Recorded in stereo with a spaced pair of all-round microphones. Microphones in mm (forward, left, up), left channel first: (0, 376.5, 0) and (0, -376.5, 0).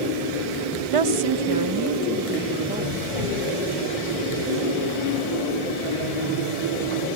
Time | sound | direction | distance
0.9 | a woman speaking | 50° right (ahead or behind) | ?